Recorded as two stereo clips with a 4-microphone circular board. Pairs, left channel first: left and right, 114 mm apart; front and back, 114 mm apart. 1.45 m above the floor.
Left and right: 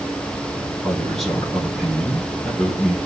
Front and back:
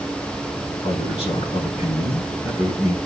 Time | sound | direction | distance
0.8 | a man speaking | straight ahead | 3.5 m